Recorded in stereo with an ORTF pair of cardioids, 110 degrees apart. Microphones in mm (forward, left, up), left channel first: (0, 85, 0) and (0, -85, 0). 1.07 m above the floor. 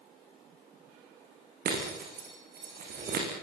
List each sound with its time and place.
1.6 s breaking glass: 55° right, 9.5 m